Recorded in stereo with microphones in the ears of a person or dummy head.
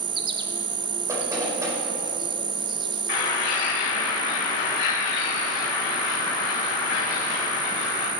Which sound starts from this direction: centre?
Knocking, at 1.1 s.